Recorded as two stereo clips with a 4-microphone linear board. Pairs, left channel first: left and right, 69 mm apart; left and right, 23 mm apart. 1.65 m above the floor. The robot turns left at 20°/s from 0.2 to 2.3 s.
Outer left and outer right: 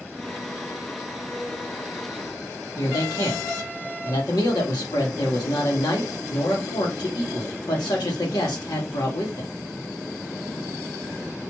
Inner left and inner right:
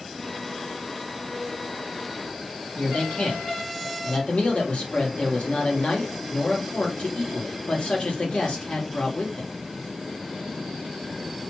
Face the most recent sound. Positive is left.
turn(degrees=80)